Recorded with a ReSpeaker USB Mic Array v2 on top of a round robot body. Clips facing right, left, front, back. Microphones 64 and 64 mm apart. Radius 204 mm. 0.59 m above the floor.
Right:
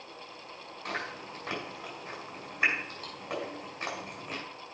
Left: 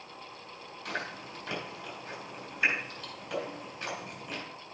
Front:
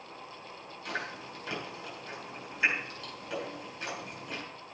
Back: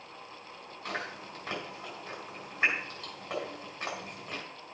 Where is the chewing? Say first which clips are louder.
Right 1 dB, even; 130° right, 5.5 m.